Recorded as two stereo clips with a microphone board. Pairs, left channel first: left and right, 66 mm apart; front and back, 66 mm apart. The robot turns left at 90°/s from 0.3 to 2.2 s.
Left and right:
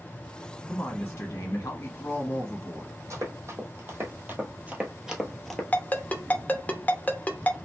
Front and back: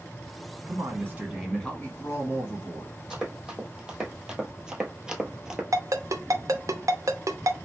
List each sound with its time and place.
0.7 s a man speaking: 170° left, 1.7 m; by 3.0 s 35° left, 1.7 m
3.1 s running footsteps: 100° right, 1.5 m; by 5.6 s 150° left, 0.9 m
5.7 s a ringtone: 155° left, 0.7 m